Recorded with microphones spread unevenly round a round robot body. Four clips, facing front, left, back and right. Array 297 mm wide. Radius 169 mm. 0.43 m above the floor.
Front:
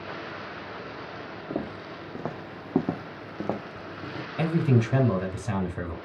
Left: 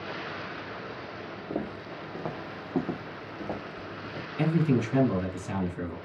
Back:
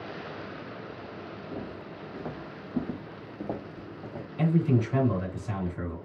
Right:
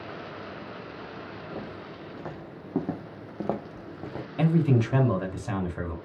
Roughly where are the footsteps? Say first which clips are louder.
Left 7 dB, front 8 dB; ahead left.